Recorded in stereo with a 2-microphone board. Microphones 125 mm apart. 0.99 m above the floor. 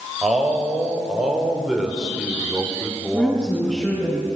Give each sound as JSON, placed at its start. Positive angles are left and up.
{"t": 0.2, "sound": "a man speaking", "side_deg": 0, "distance_m": 4.5}
{"t": 3.1, "sound": "a woman speaking", "side_deg": 5, "distance_m": 9.0}